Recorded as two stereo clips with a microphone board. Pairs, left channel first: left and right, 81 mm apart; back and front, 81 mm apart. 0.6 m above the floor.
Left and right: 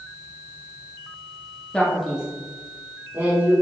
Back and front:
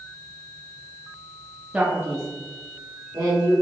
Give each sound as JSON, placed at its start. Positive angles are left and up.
{"t": 1.7, "sound": "a man speaking", "azimuth_deg": 40, "distance_m": 0.7}